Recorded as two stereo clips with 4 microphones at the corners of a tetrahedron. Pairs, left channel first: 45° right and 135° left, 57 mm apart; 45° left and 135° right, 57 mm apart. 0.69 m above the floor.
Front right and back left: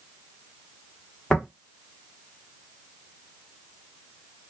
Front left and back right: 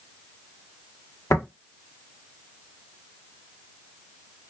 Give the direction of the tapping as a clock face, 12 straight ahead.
11 o'clock.